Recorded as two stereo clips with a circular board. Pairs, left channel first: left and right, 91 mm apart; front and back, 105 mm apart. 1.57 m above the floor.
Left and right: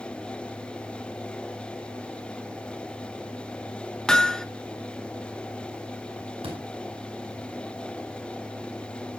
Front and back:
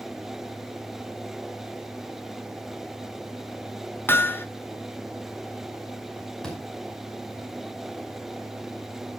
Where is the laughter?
No laughter in this recording.